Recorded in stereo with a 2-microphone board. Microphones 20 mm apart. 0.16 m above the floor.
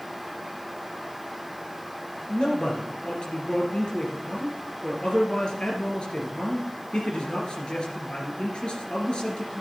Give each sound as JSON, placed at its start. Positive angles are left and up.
{"t": 2.3, "sound": "a man speaking", "side_deg": 50, "distance_m": 3.0}